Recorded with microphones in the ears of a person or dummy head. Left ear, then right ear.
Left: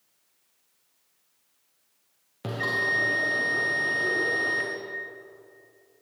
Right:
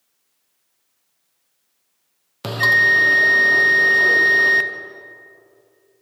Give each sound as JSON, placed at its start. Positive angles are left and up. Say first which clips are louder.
{"t": 2.4, "sound": "a bell", "louder": "right 12 dB", "side_deg": -50, "distance_m": 0.7}